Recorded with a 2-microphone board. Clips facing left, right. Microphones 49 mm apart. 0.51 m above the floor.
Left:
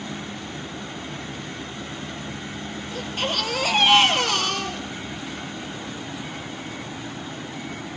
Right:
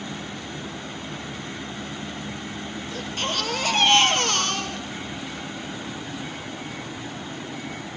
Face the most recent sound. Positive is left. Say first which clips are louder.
# left 2 dB
turn(degrees=10)  # may be behind; listen again after turning